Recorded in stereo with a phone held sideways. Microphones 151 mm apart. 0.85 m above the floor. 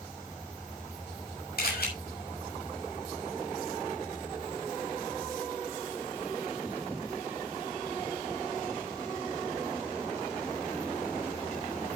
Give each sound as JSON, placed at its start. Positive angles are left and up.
{"t": 1.6, "sound": "a camera shutter", "side_deg": 75, "distance_m": 6.5}